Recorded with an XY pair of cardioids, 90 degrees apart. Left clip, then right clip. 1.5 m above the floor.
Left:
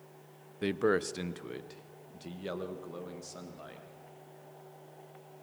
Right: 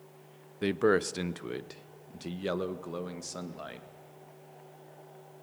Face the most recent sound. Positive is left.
turn(degrees=-50)